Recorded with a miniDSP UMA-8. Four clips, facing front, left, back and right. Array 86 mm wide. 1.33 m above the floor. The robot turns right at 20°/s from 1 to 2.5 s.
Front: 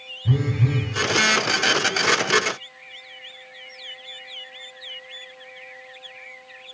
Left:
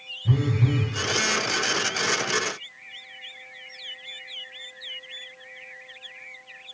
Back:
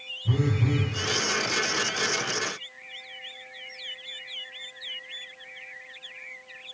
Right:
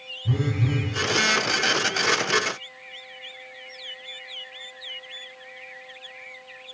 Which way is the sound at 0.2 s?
15° left.